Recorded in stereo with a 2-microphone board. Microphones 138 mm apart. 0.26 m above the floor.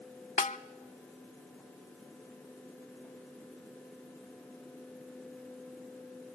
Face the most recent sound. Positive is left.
turn(degrees=65)  # may be behind; listen again after turning